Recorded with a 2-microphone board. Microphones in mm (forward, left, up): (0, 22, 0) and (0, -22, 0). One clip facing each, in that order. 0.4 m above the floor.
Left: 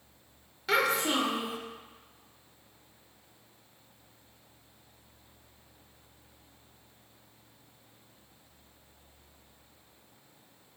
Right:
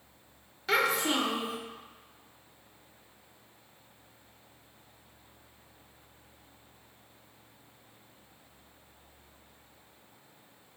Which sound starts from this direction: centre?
A child speaking, at 0.7 s.